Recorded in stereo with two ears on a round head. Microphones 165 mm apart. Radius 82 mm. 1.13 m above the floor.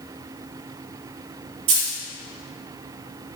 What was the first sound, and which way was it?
A dropped coin, 75° right (ahead or behind).